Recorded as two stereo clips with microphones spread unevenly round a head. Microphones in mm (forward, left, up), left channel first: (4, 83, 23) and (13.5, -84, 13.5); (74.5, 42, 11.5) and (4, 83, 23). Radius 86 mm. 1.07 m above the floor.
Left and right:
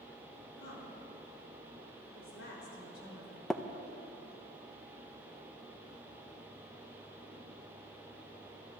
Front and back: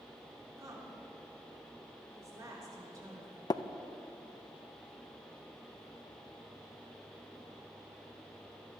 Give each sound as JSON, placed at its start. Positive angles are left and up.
{"t": 0.6, "sound": "a woman speaking", "azimuth_deg": 105, "distance_m": 3.0}
{"t": 3.5, "sound": "tapping", "azimuth_deg": 5, "distance_m": 0.5}